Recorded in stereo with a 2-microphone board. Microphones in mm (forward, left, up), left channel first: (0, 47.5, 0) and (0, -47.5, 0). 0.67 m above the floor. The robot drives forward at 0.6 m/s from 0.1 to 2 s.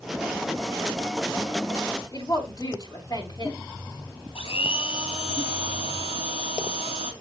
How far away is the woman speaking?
About 5 m.